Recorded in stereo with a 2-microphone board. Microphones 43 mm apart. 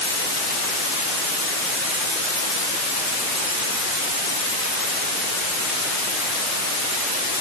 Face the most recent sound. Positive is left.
No sound to turn to.